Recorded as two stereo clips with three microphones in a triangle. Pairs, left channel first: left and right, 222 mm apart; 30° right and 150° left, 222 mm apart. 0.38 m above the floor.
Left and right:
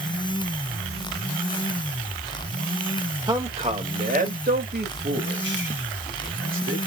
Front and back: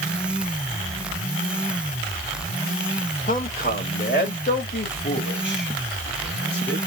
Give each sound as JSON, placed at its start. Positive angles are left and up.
{"t": 3.3, "sound": "a man speaking", "azimuth_deg": -30, "distance_m": 1.0}